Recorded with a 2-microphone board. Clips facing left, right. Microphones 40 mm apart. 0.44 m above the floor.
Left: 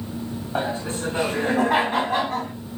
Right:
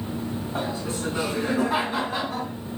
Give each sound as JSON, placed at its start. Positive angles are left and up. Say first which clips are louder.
{"t": 0.6, "sound": "laughter", "louder": "left 5 dB", "side_deg": 45, "distance_m": 3.0}